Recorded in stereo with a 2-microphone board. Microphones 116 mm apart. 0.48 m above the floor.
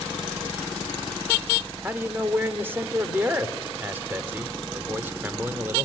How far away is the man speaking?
About 1.1 m.